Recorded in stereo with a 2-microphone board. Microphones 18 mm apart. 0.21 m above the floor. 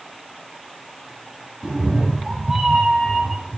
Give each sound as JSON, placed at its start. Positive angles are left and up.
{"t": 1.6, "sound": "a cat meowing", "side_deg": -50, "distance_m": 3.5}